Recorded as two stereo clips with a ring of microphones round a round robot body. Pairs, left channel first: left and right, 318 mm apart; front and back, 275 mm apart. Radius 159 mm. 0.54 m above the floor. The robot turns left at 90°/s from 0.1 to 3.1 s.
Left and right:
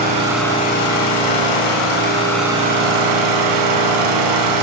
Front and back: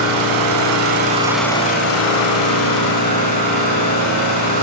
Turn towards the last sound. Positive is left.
turn(degrees=-65)